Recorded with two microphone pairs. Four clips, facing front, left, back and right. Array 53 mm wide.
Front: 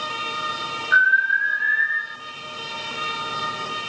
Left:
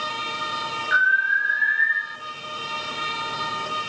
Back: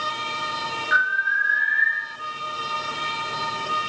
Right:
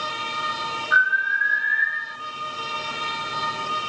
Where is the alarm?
135° left, 7.5 m.